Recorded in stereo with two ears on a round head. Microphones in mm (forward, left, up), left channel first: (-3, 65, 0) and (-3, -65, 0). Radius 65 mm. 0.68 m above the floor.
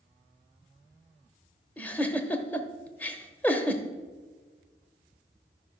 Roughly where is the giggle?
Centre.